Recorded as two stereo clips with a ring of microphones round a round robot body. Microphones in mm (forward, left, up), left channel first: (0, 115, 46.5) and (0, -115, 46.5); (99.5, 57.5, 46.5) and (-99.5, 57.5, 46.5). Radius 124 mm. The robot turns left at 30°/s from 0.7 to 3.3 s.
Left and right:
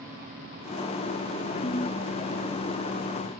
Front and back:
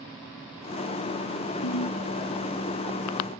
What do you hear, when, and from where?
1.6 s a ringtone: 20° left; by 2.0 s 10° left